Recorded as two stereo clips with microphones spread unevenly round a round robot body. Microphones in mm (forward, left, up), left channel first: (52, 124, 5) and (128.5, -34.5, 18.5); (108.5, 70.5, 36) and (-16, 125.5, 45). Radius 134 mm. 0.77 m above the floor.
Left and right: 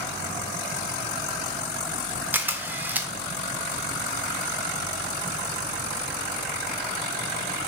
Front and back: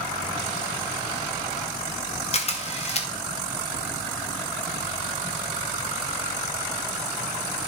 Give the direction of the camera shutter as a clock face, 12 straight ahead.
11 o'clock.